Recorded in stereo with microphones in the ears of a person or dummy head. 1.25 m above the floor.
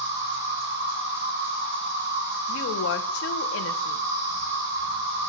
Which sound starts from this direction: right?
An insect, at 0.0 s.